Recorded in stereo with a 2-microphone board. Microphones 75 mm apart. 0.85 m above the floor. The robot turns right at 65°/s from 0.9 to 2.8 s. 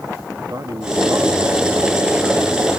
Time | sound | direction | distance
0.4 | a man speaking | 105° right | 1.3 m